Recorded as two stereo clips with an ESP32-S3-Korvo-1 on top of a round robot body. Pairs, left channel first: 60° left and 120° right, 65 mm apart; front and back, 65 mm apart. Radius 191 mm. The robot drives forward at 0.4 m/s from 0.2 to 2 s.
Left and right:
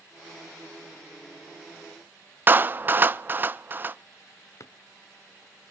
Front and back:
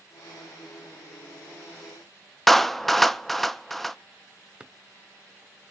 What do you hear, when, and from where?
2.5 s a clap: 85° right, 0.7 m
4.6 s a drawer: 100° left, 0.8 m